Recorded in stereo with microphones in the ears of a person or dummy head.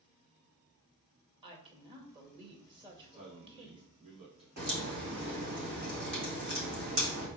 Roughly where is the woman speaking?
Right.